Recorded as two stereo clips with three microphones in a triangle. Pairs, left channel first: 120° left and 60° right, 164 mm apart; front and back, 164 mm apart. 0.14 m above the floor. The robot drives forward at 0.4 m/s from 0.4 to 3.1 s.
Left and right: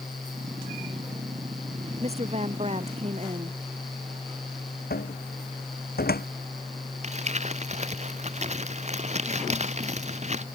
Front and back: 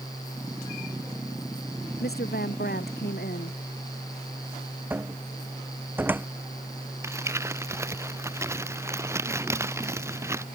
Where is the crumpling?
105° right.